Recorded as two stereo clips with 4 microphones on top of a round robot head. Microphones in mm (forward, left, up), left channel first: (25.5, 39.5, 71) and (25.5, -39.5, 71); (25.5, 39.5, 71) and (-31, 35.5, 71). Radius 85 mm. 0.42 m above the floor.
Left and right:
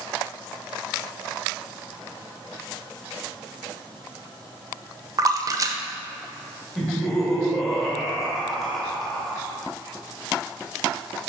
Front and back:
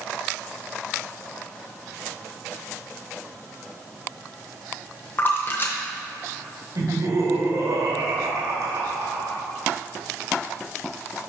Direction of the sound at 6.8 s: Straight behind.